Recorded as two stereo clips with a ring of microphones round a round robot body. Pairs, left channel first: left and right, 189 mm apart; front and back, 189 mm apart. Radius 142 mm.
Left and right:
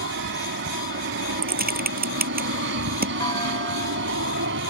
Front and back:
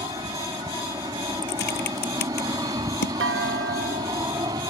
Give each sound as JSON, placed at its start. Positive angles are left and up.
{"t": 0.0, "sound": "an aircraft", "azimuth_deg": -105}
{"t": 1.4, "sound": "typing on a keyboard", "azimuth_deg": -50}
{"t": 3.2, "sound": "a clunk", "azimuth_deg": 165}